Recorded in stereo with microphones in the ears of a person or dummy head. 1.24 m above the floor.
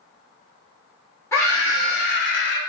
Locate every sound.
1.3 s a scream: 20° left (ahead or behind), 1.1 m; by 2.6 s 60° left (ahead or behind), 0.6 m